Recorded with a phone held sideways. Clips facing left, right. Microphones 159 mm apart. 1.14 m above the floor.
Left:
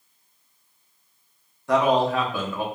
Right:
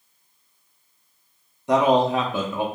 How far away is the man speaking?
About 0.5 m.